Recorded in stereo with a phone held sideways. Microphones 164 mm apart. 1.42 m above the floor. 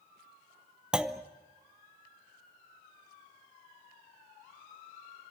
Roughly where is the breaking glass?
No breaking glass in this recording.